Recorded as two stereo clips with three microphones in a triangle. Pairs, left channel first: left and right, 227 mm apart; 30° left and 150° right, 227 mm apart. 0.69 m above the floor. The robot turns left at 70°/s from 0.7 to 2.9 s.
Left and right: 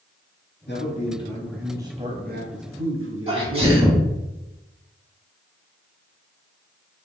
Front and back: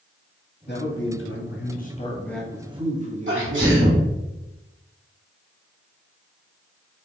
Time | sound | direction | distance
0.7 | a man speaking | 60° left | 1.0 m
3.3 | a sneeze | 150° right | 2.0 m